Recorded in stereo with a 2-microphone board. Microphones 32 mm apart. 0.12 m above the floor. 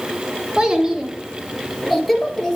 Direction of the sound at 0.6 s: 25° right (ahead or behind).